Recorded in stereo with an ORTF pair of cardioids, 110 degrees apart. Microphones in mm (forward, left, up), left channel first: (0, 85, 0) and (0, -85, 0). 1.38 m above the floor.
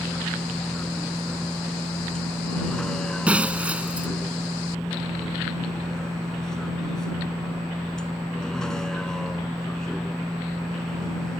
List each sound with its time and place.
0.0 s a vehicle: 5° left
3.3 s breaking glass: 10° right